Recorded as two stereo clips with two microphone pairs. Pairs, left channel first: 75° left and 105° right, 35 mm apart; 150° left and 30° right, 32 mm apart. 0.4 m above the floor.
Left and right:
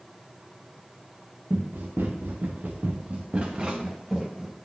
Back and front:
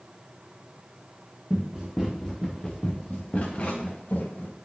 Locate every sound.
1.5 s running footsteps: 100° right, 2.5 m; by 4.5 s 175° left, 3 m